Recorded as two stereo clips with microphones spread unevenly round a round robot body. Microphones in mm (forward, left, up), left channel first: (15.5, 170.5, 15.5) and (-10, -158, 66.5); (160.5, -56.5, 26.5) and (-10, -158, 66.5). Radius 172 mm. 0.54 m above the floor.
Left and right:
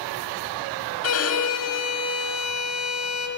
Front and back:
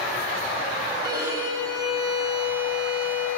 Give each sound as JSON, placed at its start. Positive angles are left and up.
{"t": 1.0, "sound": "a violin", "azimuth_deg": 130, "distance_m": 3.0}